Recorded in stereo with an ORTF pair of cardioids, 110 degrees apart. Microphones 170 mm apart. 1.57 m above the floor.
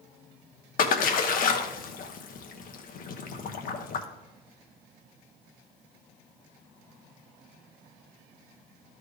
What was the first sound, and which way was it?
A splash, 55° left.